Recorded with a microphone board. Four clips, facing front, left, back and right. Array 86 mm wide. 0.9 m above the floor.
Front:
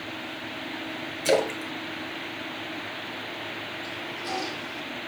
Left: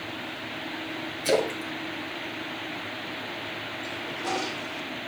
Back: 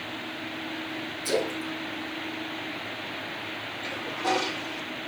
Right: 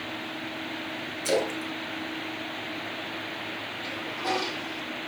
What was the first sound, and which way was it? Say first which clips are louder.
A splash: left 2 dB, front 5 dB; 10° left.